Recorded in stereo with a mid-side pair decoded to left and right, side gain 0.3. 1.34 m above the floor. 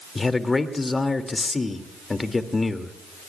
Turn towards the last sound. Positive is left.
turn(degrees=35)